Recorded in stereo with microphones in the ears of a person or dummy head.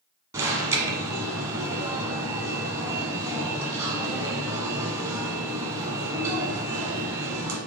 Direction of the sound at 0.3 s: 20° right (ahead or behind).